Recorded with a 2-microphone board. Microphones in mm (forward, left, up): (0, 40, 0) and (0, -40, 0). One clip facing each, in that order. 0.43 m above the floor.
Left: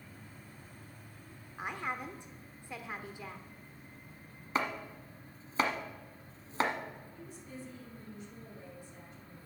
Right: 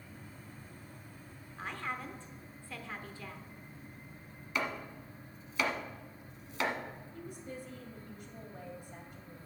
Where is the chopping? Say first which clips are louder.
Left 2 dB; 40° left (ahead or behind), 1.1 m.